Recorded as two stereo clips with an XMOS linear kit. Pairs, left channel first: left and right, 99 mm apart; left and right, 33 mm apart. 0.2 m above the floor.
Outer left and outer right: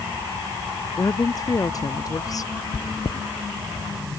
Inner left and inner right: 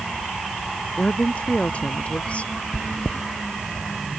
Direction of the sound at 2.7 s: 55° left (ahead or behind).